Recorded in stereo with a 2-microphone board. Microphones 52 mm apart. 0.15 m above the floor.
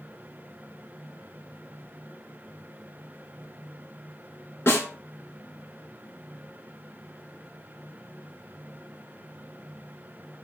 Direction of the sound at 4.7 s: 50° left (ahead or behind).